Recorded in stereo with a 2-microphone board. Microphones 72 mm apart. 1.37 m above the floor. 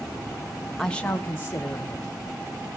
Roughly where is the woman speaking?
Centre.